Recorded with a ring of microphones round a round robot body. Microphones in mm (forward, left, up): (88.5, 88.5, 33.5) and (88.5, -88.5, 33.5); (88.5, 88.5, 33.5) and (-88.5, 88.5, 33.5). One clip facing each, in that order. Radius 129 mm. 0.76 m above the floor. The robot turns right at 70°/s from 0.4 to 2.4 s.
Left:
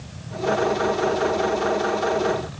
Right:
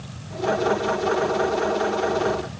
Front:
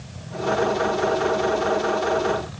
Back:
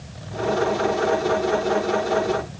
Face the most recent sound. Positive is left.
No sound to turn to.